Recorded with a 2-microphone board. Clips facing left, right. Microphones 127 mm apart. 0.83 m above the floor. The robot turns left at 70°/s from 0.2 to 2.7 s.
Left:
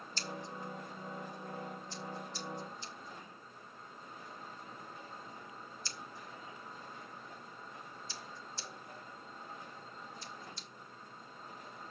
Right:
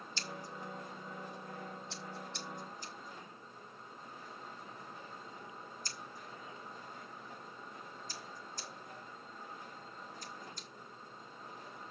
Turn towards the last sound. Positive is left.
turn(degrees=-45)  # may be behind; listen again after turning